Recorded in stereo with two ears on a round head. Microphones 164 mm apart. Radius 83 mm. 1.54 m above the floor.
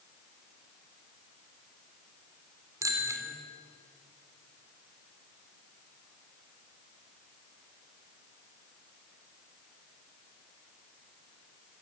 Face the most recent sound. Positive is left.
turn(degrees=-20)  # may be behind; listen again after turning